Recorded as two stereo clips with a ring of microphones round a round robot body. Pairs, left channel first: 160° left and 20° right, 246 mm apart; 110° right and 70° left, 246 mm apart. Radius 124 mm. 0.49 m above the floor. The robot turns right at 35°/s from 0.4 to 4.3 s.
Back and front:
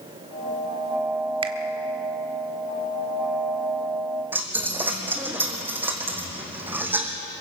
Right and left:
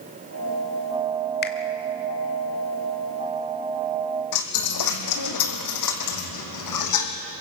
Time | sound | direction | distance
1.4 | a finger snap | 85° right | 1.4 m
4.3 | a dropped coin | 105° right | 2.5 m